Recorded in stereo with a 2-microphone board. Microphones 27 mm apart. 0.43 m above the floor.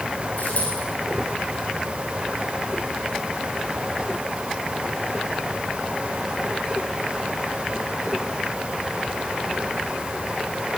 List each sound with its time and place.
0.4 s a dropped coin: 60° left (ahead or behind), 10 m